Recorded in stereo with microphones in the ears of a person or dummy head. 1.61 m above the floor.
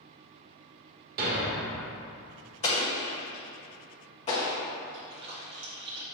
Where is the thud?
40° right (ahead or behind), 1.2 m.